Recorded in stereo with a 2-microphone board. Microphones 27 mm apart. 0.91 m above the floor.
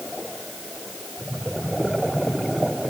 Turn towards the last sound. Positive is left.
No sound to turn to.